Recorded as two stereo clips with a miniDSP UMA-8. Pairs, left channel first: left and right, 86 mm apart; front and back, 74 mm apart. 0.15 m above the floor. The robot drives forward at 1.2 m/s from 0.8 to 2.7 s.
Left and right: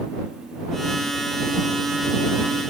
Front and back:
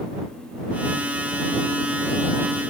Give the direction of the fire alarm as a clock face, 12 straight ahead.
I don't hear a fire alarm.